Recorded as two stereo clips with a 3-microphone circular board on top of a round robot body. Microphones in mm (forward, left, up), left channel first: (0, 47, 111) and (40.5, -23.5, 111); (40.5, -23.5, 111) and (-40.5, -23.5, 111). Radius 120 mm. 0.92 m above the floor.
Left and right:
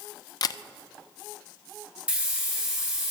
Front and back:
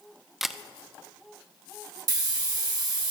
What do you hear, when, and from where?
0.4 s a camera shutter: 90° left, 0.5 m
2.1 s a hiss: 135° right, 1.9 m